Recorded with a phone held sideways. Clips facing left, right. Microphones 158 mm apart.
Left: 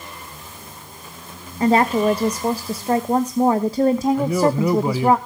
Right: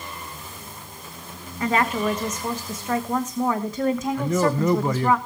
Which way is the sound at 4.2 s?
10° left (ahead or behind).